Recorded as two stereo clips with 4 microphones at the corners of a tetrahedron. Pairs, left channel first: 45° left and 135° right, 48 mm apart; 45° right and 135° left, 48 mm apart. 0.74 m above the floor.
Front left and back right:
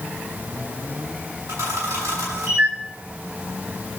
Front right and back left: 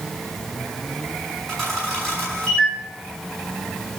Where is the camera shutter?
130° right, 7 m.